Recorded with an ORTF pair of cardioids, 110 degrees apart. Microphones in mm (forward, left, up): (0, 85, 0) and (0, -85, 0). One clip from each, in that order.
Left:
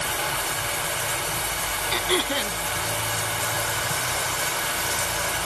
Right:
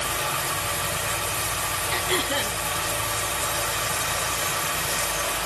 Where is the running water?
10° right, 1.8 m.